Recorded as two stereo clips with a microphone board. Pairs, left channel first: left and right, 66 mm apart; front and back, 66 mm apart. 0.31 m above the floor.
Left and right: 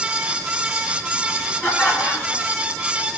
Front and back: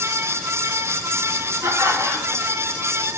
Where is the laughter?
140° left, 3 m.